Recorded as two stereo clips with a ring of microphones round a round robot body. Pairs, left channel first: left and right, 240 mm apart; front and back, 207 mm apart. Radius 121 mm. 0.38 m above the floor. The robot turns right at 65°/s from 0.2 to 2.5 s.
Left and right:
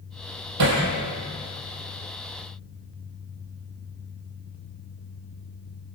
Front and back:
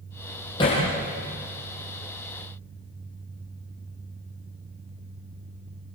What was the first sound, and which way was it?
Hammering, 75° right.